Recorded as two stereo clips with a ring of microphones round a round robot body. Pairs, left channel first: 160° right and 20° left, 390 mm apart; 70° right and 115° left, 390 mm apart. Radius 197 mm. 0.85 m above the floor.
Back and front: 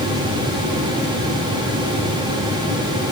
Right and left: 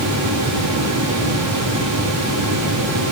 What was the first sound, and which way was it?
Only background noise.